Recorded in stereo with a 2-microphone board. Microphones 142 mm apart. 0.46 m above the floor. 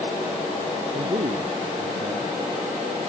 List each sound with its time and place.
0.9 s a man speaking: 50° right (ahead or behind)